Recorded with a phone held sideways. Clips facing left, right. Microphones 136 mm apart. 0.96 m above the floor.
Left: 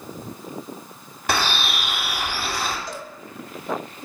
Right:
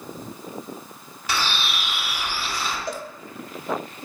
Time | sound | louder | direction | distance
1.3 | a bird | left 3 dB | 60° left (ahead or behind) | 2.5 m
2.9 | a cowbell | right 3 dB | 60° right (ahead or behind) | 0.9 m